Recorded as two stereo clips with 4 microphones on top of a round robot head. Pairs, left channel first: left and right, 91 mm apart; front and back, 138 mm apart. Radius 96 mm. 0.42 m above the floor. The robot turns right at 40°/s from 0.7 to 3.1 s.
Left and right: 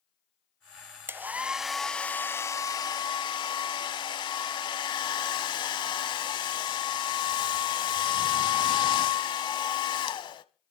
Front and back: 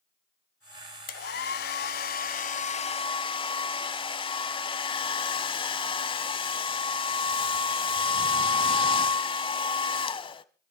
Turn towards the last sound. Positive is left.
turn(degrees=55)